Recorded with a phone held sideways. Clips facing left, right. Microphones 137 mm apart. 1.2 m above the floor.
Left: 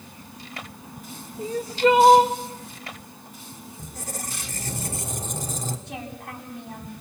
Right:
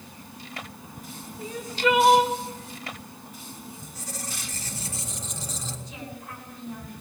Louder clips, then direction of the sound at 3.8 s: Left 3 dB; 50° left (ahead or behind).